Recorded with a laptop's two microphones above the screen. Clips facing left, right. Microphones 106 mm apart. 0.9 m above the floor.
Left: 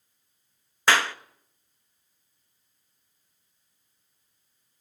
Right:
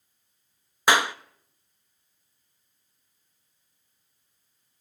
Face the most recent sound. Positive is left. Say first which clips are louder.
# right 1 dB
turn(degrees=-15)  # may be behind; listen again after turning